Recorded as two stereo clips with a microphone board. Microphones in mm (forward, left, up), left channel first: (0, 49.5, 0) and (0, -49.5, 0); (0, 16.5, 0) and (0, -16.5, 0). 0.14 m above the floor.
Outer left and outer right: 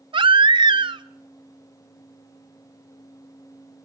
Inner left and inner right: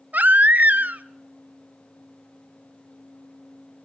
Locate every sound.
0.1 s a baby crying: 55° right (ahead or behind), 0.6 m